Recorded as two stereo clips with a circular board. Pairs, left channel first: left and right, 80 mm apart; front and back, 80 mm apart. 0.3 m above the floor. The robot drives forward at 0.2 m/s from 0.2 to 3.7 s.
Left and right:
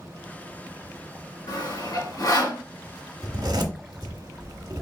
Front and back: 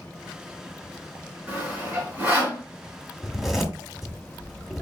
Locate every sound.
1.5 s sawing: 110° left, 3 m; by 2.6 s 115° left, 3 m
3.2 s a zipper: 90° right, 1.2 m; by 4.8 s 95° right, 1.2 m